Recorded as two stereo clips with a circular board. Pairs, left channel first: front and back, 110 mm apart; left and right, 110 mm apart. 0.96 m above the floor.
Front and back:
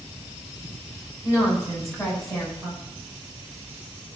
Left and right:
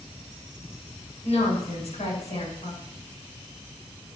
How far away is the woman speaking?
About 7 m.